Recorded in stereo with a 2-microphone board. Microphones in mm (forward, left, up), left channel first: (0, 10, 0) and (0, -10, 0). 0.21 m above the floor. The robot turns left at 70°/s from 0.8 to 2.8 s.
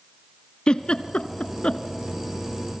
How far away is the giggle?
About 1.4 m.